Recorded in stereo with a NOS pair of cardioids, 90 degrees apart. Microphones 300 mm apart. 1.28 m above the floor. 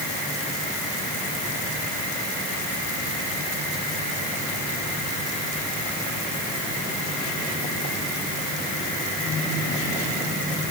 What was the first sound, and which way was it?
Only background noise.